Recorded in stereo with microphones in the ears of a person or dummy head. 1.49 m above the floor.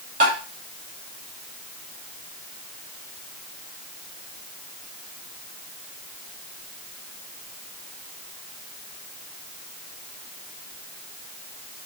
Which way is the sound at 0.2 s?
45° right (ahead or behind).